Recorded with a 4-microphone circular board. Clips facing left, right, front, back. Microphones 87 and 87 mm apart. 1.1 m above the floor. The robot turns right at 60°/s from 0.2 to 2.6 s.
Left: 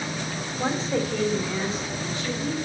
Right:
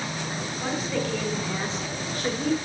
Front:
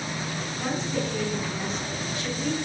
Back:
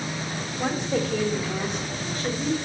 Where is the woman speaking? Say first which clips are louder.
Left 3 dB, back 4 dB; 135° left, 3 m; by 2.5 s 105° right, 3 m.